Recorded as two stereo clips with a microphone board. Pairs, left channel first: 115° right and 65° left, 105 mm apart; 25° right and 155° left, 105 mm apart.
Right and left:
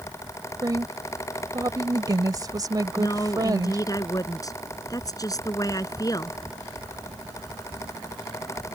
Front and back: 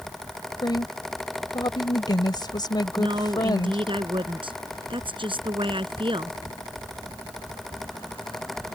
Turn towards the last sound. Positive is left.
turn(degrees=-170)